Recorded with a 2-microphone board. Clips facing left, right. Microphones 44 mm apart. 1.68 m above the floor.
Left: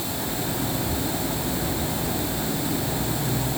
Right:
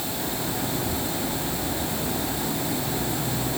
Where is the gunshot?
No gunshot in this recording.